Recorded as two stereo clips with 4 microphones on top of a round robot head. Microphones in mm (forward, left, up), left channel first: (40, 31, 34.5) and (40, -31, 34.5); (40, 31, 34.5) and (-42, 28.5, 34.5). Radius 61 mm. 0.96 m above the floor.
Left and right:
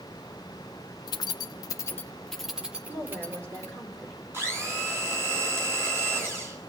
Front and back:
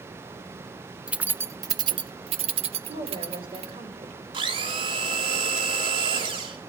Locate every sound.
1.1 s keys jangling: 105° left, 0.7 m; by 3.7 s 150° right, 1.3 m
2.9 s a woman speaking: 150° right, 5 m
4.3 s a blender: 150° right, 3 m